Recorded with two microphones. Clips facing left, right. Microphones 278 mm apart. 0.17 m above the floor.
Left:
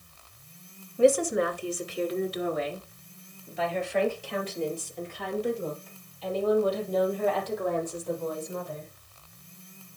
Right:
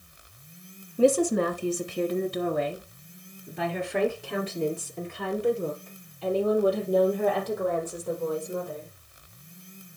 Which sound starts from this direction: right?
A woman speaking, at 1.0 s.